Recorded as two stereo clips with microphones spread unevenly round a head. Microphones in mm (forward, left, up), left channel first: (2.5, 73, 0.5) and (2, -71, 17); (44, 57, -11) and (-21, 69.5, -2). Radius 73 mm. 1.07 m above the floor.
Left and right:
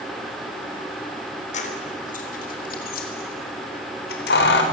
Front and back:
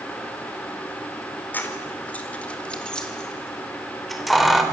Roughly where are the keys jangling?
Ahead left.